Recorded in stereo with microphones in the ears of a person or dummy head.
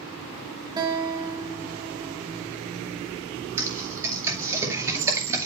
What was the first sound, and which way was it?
A guitar, 20° right (ahead or behind).